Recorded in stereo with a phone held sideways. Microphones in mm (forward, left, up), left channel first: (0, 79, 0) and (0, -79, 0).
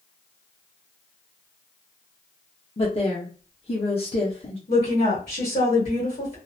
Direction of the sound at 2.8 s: 40° left (ahead or behind).